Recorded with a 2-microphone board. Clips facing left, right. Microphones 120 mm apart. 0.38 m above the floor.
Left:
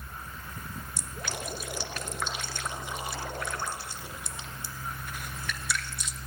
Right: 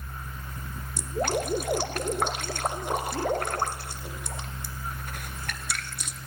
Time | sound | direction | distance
1.0 | dripping | 55° right (ahead or behind) | 1.2 m